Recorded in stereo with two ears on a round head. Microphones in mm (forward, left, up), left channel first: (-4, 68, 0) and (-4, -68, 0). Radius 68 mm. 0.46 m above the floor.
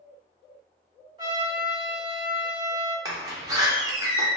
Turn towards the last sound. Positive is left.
turn(degrees=-25)  # may be behind; listen again after turning